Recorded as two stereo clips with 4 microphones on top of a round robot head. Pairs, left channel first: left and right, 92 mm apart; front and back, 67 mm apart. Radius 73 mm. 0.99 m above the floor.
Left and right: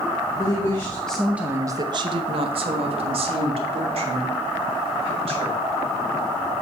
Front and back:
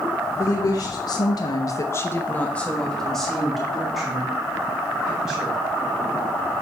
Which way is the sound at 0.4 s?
35° left.